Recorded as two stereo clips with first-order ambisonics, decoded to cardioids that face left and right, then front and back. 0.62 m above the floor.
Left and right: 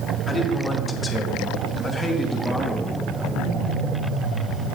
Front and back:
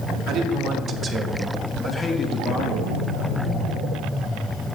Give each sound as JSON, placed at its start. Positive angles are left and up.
{"t": 0.3, "sound": "a man speaking", "azimuth_deg": 155, "distance_m": 1.1}